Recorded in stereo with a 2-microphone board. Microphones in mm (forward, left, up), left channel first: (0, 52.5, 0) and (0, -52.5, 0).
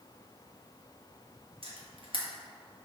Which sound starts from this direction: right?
A camera shutter, at 1.6 s.